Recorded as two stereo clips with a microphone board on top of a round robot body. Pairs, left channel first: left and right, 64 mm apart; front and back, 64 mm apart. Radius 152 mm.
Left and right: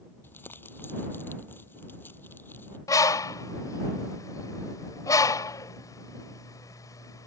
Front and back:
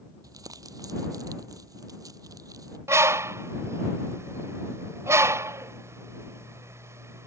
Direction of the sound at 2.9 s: 130° left.